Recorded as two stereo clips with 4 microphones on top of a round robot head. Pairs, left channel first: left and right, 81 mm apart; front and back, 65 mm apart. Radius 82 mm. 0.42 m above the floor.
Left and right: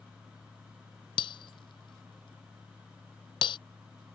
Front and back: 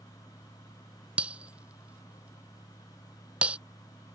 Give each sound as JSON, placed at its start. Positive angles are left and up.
{"t": 1.2, "sound": "breaking glass", "azimuth_deg": 105}